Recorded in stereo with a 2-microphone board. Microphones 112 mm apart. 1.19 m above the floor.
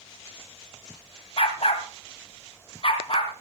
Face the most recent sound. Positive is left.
turn(degrees=55)  # may be behind; listen again after turning